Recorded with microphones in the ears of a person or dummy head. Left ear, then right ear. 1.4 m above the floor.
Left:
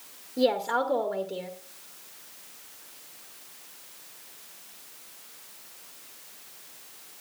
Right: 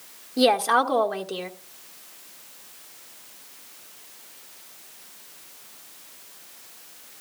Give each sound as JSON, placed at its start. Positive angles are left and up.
{"t": 0.4, "sound": "a woman speaking", "side_deg": -45, "distance_m": 1.6}